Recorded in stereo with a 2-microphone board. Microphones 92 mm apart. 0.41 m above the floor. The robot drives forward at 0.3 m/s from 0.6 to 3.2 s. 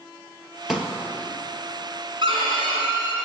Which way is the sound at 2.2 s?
65° right (ahead or behind).